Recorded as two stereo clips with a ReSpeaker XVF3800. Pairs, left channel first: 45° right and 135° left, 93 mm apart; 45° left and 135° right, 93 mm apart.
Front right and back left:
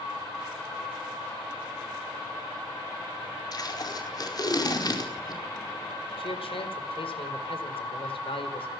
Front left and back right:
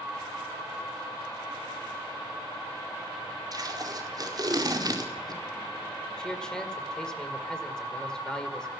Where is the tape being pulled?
90° right, 4.5 m.